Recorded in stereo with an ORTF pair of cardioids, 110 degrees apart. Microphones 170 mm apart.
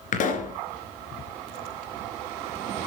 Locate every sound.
0.1 s a pop: 50° left, 3 m